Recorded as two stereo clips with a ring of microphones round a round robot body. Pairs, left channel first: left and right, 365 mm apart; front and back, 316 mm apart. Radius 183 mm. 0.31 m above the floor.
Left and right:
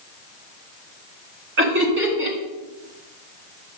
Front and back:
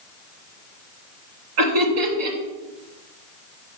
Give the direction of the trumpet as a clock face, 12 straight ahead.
I don't hear a trumpet.